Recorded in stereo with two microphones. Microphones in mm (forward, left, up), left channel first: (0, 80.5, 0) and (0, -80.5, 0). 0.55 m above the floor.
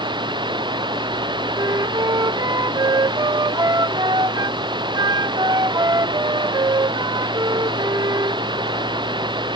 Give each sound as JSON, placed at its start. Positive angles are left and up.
{"t": 0.0, "sound": "running water", "side_deg": -30}
{"t": 1.6, "sound": "a flute", "side_deg": -25}